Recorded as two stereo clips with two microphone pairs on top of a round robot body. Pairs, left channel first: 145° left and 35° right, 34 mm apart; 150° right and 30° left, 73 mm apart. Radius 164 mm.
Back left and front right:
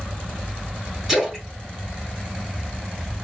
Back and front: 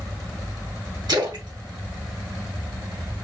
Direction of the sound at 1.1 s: 45° left.